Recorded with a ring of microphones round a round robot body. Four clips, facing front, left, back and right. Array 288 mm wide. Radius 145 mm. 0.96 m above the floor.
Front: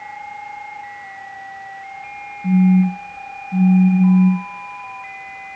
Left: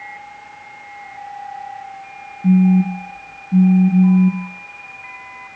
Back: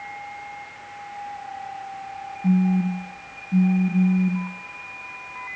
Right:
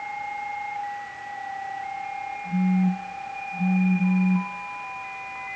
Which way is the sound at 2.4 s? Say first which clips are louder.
Left 10 dB, front 6 dB; 90° left.